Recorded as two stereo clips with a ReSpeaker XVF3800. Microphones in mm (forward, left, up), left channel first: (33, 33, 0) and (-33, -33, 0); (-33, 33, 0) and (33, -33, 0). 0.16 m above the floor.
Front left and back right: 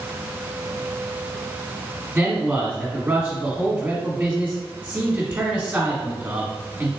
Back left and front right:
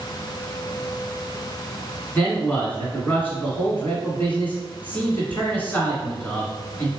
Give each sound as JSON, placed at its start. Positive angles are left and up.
{"t": 2.1, "sound": "a man speaking", "azimuth_deg": 180, "distance_m": 1.4}